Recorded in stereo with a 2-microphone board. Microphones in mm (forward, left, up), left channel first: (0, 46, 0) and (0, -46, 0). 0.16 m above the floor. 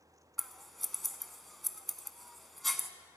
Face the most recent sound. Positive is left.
turn(degrees=0)  # may be behind; listen again after turning